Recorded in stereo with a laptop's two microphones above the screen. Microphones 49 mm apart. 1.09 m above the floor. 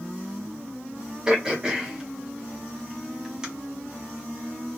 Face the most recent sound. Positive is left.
turn(degrees=-15)  # may be behind; listen again after turning